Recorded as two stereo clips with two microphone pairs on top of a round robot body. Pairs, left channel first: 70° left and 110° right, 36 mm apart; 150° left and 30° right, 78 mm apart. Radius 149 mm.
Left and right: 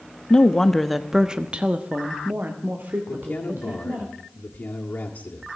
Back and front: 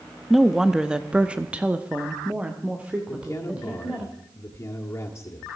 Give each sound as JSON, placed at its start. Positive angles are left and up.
{"t": 0.3, "sound": "a woman speaking", "azimuth_deg": 50, "distance_m": 1.0}
{"t": 3.1, "sound": "a man speaking", "azimuth_deg": 100, "distance_m": 1.7}